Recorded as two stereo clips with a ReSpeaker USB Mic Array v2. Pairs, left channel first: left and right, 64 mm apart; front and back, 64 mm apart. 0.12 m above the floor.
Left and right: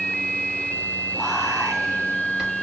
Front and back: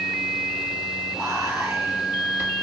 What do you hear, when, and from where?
1.1 s whispering: 170° right, 2.5 m